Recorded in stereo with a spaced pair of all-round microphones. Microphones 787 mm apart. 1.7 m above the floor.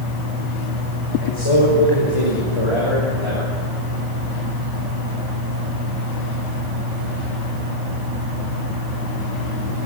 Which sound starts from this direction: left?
A man speaking, at 1.2 s.